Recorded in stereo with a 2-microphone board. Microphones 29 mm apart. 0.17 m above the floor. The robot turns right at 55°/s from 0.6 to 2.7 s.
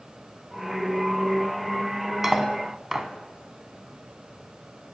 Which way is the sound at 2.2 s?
15° right (ahead or behind).